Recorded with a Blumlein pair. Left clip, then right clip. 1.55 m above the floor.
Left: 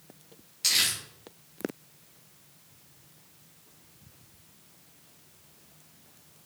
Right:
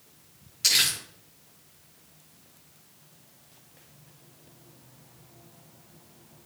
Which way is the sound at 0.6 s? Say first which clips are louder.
Right 3 dB; 10° right.